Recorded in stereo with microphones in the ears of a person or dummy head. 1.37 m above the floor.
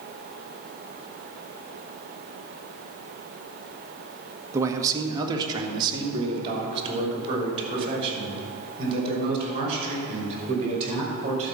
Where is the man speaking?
15° right (ahead or behind), 1.1 m; by 11.5 s 35° right (ahead or behind), 6.5 m.